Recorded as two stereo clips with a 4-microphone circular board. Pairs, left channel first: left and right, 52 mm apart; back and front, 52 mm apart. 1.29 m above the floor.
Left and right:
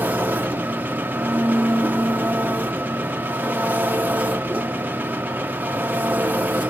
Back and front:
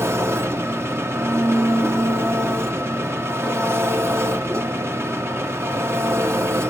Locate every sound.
0.0 s an engine running: 35° right, 0.9 m